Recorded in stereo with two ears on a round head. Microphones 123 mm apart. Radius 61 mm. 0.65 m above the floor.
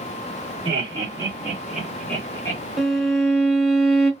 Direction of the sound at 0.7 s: 35° right (ahead or behind).